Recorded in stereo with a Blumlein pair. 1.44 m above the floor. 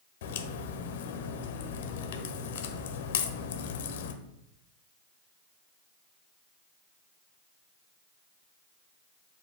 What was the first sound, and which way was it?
A crack, 55° left.